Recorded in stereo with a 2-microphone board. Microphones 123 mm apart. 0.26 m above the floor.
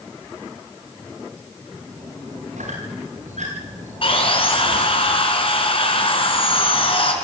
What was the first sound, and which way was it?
A squeak, 90° right.